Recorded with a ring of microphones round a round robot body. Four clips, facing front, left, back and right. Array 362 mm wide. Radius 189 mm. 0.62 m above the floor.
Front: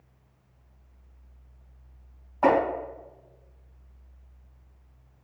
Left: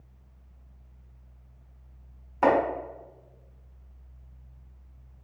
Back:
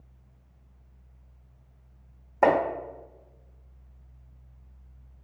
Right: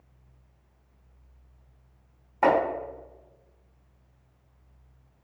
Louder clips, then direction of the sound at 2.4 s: Even, even; 170° left.